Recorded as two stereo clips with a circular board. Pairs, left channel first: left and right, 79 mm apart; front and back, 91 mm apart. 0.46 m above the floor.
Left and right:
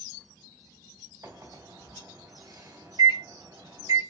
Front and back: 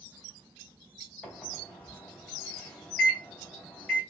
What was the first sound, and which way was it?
A microwave, 80° right.